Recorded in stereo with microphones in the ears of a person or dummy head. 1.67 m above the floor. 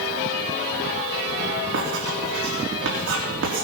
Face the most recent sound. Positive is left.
turn(degrees=-70)  # may be behind; listen again after turning